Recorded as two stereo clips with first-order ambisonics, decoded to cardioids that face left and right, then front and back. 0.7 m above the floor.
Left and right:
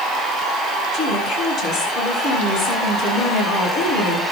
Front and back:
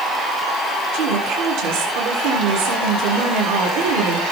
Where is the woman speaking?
Straight behind, 8 m.